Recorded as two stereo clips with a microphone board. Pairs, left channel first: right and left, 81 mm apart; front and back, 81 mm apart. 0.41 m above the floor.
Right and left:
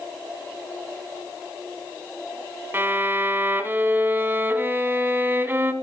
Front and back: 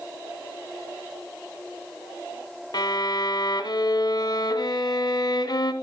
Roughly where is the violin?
Ahead left.